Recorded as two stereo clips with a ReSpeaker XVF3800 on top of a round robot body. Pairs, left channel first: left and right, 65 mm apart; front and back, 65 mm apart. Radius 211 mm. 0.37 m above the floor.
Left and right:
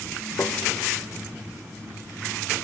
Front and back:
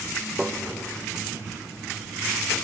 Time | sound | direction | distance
0.4 | tapping | 95° left | 0.9 m